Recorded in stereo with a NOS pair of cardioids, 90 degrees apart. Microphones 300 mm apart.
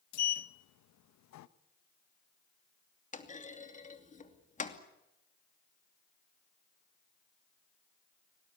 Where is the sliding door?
65° left, 1.0 m.